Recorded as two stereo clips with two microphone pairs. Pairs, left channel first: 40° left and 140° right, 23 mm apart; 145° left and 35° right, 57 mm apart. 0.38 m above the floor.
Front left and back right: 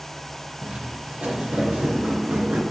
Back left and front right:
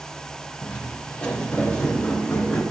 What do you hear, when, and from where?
0.6 s footsteps: 145° right, 4 m